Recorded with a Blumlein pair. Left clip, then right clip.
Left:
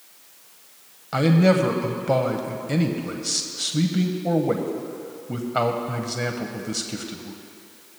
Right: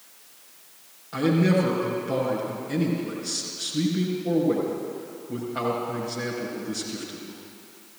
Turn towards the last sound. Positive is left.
turn(degrees=30)